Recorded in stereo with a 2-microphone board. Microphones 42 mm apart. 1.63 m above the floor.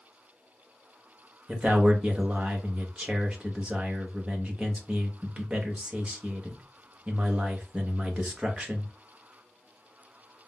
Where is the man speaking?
25° right (ahead or behind), 1.1 m.